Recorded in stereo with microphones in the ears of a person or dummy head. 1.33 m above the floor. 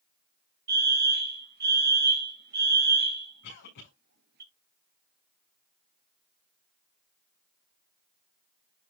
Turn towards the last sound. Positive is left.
turn(degrees=55)  # may be behind; listen again after turning